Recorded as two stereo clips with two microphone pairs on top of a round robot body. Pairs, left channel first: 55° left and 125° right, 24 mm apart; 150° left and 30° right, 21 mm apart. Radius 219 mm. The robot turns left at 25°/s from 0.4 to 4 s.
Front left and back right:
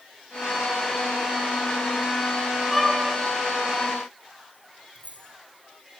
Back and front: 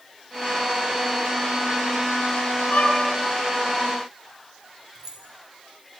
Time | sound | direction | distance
2.7 | a violin | 140° left | 10 m
5.0 | keys jangling | 80° right | 5 m